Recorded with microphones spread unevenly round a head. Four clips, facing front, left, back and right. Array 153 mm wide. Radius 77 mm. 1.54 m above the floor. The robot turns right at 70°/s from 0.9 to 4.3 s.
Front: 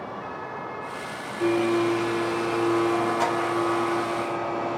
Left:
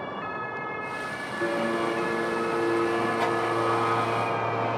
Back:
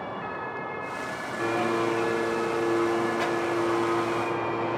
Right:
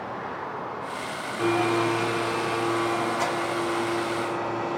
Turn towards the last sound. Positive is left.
turn(degrees=90)